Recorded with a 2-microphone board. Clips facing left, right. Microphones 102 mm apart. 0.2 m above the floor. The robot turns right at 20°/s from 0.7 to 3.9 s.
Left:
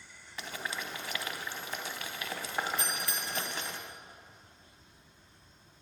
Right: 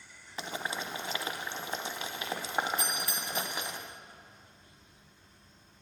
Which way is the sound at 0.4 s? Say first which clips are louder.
Right 3 dB; 25° right (ahead or behind).